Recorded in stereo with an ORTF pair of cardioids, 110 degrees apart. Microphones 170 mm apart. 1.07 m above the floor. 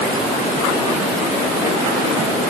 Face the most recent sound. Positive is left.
No sound to turn to.